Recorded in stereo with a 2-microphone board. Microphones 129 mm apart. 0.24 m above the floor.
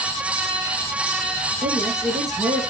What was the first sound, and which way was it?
A woman speaking, 65° right (ahead or behind).